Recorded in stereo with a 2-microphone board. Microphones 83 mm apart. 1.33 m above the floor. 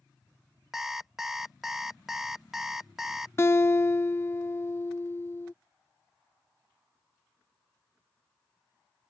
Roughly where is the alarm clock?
Centre.